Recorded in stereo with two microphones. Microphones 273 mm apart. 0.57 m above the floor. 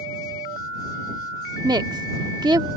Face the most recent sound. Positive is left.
turn(degrees=-15)  # may be behind; listen again after turning